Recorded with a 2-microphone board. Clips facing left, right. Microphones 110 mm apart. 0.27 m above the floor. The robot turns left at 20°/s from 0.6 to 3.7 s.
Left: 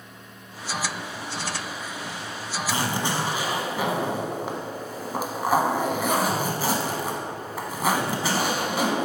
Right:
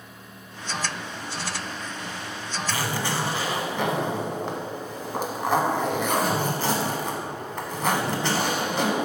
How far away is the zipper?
About 0.6 m.